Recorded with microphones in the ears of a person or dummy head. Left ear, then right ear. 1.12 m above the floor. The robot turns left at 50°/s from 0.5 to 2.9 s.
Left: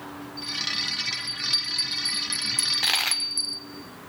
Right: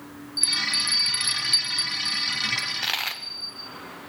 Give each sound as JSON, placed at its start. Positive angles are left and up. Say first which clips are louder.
{"t": 0.4, "sound": "a bell", "louder": "right 5 dB", "azimuth_deg": -115, "distance_m": 1.5}
{"t": 2.6, "sound": "a dropped coin", "louder": "left 3 dB", "side_deg": 20, "distance_m": 1.0}